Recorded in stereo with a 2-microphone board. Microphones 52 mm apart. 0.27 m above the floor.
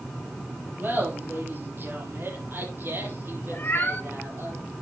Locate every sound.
0.8 s laughter: 40° right (ahead or behind), 5.5 m; by 4.5 s 50° right (ahead or behind), 7 m
3.5 s a cat meowing: 40° left (ahead or behind), 1.1 m